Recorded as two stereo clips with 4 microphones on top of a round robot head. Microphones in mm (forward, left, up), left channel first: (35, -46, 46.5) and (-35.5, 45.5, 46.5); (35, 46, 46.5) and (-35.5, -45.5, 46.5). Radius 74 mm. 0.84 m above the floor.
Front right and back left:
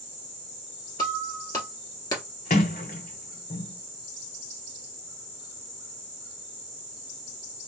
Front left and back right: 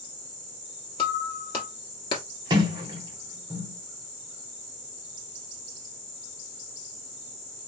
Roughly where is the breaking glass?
Ahead.